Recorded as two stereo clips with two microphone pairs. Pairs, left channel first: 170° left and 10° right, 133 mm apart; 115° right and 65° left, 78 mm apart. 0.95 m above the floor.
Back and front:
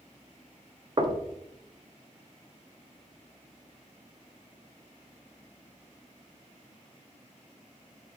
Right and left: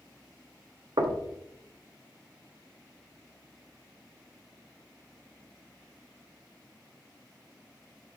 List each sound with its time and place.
1.0 s knocking: 45° left, 0.7 m